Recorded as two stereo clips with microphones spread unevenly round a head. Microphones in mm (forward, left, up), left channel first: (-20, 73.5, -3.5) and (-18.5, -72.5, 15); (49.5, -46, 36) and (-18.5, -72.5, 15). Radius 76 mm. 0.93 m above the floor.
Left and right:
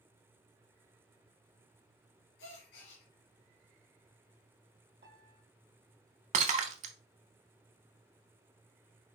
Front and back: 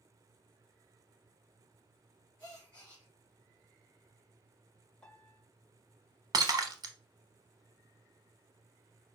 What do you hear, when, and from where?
2.4 s a gasp: 95° left, 3 m
5.0 s a piano: 60° right, 1.6 m
6.3 s breaking glass: 120° right, 1.0 m